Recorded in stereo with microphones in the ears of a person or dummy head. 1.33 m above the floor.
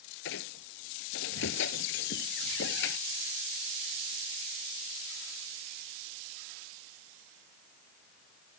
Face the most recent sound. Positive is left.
turn(degrees=65)  # may be behind; listen again after turning